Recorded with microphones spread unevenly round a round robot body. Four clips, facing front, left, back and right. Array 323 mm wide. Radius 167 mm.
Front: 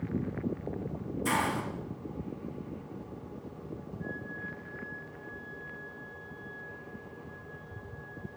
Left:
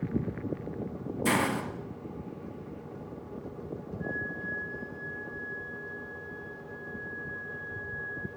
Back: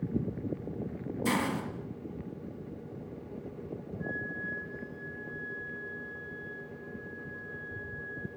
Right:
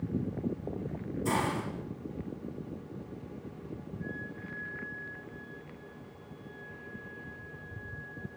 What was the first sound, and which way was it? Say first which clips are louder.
A hiss: left 3 dB, front 1 dB; 90° left.